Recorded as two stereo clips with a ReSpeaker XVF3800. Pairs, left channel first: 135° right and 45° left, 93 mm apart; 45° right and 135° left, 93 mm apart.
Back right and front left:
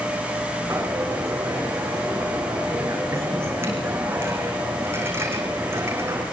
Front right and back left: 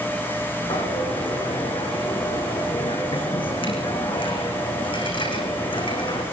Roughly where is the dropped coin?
Ahead.